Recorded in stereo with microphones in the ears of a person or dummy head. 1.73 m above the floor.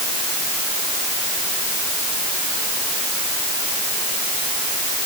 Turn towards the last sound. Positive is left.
No sound to turn to.